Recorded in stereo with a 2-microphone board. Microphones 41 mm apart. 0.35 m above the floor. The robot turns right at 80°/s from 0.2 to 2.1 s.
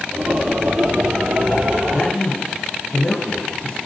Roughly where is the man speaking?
Left.